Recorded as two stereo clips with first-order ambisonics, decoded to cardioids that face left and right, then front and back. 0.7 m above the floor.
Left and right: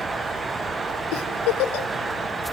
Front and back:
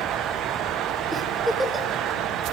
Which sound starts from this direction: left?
A giggle, at 1.1 s.